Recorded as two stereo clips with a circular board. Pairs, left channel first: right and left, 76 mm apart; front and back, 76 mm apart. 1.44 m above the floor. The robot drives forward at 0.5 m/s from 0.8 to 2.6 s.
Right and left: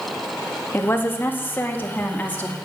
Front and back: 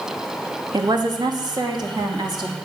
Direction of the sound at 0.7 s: 150° right.